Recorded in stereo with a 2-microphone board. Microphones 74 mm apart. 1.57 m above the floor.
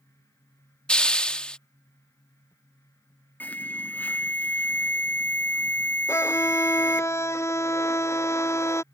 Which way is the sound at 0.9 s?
15° left (ahead or behind).